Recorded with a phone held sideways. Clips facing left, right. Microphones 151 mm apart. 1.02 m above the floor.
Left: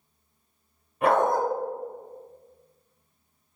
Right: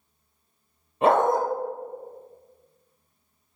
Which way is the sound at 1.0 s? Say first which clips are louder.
Right 2 dB; 25° right (ahead or behind).